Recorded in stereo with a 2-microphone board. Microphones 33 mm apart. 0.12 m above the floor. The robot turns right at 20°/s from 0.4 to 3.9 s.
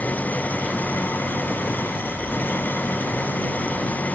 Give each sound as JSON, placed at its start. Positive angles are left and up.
{"t": 0.0, "sound": "an engine running", "azimuth_deg": 55}